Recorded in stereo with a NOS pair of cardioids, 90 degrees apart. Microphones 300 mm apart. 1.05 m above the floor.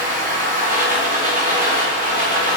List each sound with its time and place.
0.0 s a machine running: 30° right, 1.3 m